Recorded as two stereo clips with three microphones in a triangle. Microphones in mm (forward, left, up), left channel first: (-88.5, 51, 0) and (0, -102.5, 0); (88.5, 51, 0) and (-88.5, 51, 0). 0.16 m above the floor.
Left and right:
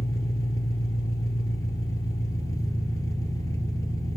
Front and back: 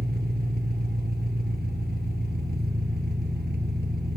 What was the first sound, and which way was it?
An engine running, 170° right.